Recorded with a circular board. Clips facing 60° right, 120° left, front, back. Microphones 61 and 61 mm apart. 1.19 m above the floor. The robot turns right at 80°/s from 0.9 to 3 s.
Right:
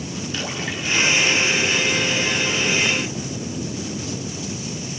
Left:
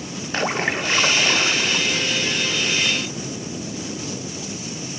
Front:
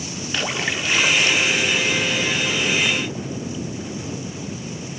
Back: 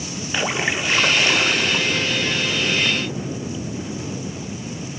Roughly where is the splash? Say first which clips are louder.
Left 9 dB, back 2 dB; left.